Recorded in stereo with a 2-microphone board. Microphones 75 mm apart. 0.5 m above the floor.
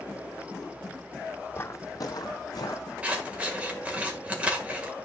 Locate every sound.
1.5 s footsteps: 30° left (ahead or behind), 1.0 m; by 2.9 s 55° left (ahead or behind), 1.5 m
3.0 s scissors: 15° right (ahead or behind), 1.8 m